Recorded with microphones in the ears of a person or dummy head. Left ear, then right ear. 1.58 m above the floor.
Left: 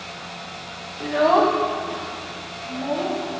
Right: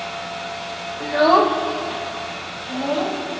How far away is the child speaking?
About 0.6 m.